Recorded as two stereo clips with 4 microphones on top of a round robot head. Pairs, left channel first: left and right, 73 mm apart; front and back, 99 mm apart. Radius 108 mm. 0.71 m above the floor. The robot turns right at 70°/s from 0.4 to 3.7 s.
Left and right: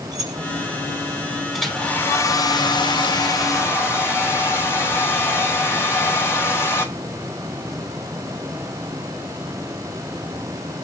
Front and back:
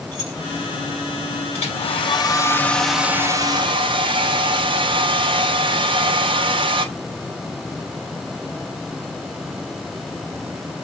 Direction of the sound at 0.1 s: 130° right.